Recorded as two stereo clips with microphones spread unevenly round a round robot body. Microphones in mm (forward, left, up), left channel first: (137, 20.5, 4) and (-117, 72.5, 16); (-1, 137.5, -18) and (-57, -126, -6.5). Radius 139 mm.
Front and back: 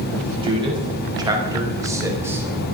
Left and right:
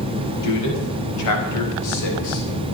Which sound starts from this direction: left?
A man speaking, at 0.4 s.